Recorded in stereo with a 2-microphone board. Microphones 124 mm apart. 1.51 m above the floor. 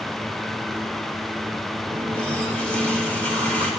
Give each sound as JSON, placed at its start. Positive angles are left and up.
{"t": 1.9, "sound": "a running tap", "side_deg": 10, "distance_m": 3.5}